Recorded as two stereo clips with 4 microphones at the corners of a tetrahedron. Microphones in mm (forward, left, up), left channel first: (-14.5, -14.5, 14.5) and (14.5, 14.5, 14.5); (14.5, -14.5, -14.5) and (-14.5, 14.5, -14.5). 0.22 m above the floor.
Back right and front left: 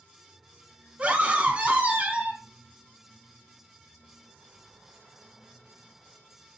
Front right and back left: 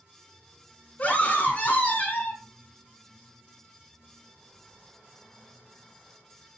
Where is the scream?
5° right, 1.9 m.